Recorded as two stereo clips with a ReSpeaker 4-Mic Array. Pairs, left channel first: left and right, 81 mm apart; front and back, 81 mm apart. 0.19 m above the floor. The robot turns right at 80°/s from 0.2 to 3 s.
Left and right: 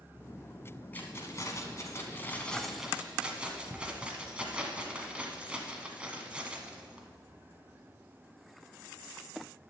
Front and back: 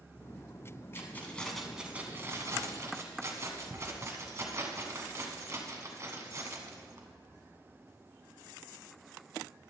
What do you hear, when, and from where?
0.9 s keys jangling: 35° left, 1.0 m; by 7.1 s 160° right, 1.0 m